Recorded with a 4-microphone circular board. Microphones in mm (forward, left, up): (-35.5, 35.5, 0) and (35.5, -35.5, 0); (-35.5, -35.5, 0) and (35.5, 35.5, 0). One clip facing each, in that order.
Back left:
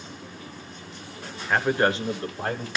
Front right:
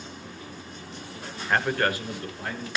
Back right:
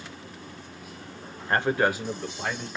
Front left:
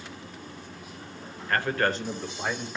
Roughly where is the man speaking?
Behind right.